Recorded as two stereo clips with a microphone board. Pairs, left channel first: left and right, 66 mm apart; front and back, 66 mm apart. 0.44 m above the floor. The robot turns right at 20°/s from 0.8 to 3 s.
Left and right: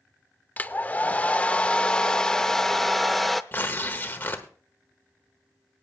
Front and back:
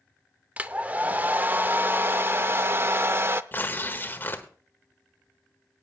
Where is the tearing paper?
40° left, 1.2 m.